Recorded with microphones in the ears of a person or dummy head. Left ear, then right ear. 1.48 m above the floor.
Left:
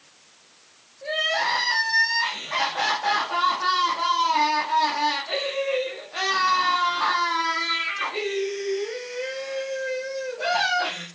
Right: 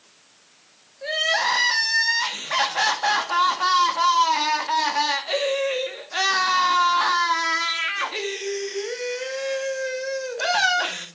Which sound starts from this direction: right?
Crying, at 1.0 s.